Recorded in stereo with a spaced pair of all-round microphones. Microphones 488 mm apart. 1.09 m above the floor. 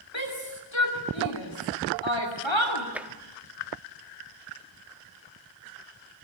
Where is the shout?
65° left (ahead or behind), 3 m.